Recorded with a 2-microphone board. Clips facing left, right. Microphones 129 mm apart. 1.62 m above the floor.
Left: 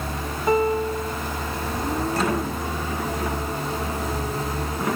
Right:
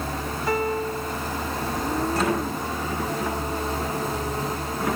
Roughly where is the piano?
Left.